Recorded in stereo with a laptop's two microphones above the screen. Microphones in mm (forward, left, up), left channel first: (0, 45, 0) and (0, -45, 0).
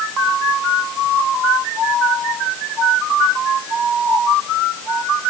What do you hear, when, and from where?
Only background noise.